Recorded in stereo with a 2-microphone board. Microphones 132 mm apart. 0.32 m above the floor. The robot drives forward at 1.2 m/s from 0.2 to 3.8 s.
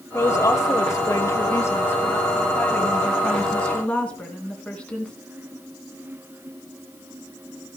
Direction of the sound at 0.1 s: 20° left (ahead or behind).